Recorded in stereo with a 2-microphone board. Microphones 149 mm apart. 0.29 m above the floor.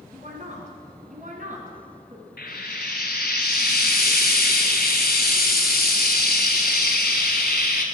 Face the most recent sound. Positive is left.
turn(degrees=80)